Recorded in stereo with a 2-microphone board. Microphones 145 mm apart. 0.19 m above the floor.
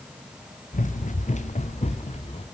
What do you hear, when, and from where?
0.7 s running footsteps: 60° left (ahead or behind), 2.5 m; by 2.5 s 45° left (ahead or behind), 3 m